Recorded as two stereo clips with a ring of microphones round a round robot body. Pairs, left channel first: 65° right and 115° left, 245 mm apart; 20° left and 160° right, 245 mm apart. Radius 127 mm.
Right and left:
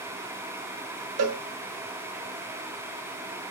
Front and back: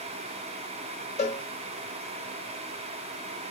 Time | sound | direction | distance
1.2 | a cowbell | 85° left | 0.6 m